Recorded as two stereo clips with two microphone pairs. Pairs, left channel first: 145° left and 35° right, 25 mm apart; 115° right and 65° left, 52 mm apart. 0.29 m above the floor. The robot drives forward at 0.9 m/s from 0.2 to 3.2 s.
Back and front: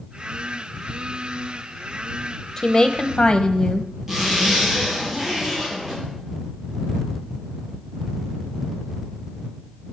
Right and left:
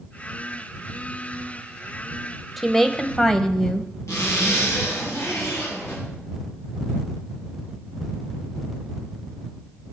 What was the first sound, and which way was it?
A woman speaking, 155° left.